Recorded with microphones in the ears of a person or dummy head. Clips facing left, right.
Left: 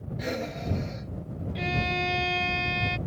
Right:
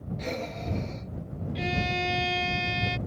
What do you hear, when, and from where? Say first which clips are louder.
0.2 s breathing: left 3 dB; 10° left (ahead or behind)
1.6 s a violin: even; 5° right (ahead or behind)